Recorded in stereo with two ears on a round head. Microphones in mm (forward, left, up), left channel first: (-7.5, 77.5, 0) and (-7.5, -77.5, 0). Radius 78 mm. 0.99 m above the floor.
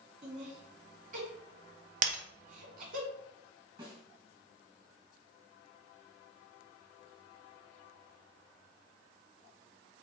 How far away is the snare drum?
About 3 m.